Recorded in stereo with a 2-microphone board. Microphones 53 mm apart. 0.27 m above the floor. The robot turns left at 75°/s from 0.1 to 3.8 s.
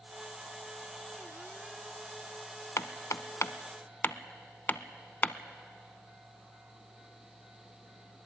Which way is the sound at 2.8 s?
65° left (ahead or behind).